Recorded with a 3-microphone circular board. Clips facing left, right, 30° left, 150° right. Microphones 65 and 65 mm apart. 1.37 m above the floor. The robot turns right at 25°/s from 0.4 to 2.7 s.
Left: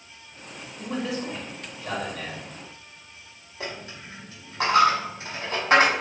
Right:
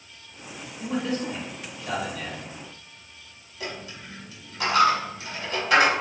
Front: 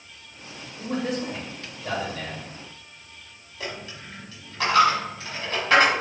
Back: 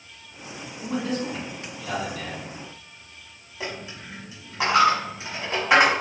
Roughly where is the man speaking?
Ahead.